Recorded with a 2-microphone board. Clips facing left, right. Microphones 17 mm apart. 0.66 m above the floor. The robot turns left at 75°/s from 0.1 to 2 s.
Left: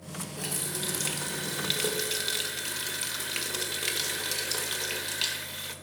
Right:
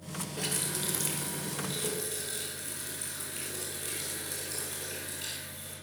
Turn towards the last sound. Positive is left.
turn(degrees=90)